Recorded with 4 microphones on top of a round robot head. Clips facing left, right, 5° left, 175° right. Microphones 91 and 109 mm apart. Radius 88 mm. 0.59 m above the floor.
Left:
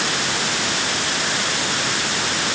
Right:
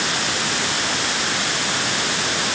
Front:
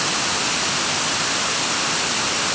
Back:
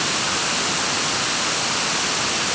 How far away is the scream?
No scream in this recording.